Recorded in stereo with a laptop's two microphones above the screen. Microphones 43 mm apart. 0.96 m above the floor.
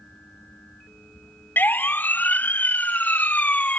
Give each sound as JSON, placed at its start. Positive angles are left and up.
{"t": 0.0, "sound": "a fan", "side_deg": 35}
{"t": 1.6, "sound": "a siren", "side_deg": 45}